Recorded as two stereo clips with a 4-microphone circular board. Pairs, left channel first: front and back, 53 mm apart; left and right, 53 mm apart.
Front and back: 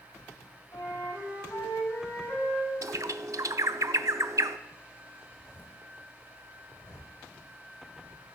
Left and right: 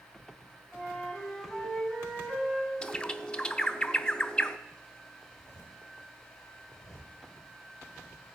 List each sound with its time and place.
0.7 s a flute: straight ahead, 5.5 m
2.8 s a bird: 165° left, 0.5 m
5.2 s a zipper: 115° left, 5 m